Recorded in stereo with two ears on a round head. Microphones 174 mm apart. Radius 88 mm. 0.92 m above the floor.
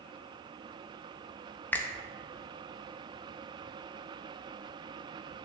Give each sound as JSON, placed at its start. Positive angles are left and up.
{"t": 1.7, "sound": "a finger snap", "side_deg": 10, "distance_m": 0.5}